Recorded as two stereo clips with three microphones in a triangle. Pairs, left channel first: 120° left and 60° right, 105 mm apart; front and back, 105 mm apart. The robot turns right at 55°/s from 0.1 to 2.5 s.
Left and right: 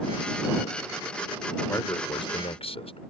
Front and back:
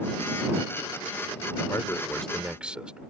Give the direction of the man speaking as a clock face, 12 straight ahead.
10 o'clock.